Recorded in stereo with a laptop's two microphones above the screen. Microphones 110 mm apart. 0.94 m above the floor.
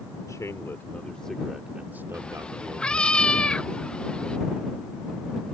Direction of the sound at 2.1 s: 10° left (ahead or behind).